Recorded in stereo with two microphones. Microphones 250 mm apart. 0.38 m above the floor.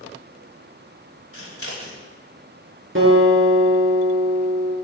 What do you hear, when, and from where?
1.3 s scissors: 60° left (ahead or behind), 1.9 m
3.0 s a guitar: 55° right (ahead or behind), 3 m